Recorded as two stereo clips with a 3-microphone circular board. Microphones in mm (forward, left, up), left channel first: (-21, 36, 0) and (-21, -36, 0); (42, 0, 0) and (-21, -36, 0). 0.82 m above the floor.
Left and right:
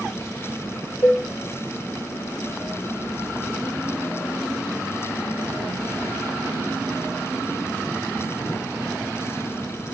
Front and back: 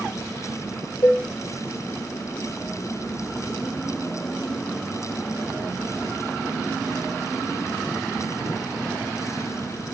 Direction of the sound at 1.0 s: 50° left.